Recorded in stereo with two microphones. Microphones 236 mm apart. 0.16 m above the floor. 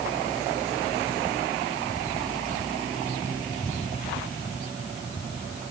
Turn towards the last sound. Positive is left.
No sound to turn to.